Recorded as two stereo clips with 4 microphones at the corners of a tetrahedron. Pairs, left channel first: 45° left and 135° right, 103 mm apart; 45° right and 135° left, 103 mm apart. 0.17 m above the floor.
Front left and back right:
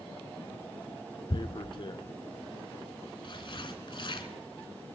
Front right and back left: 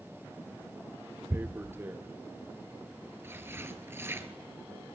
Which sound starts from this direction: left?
Tearing paper, at 1.3 s.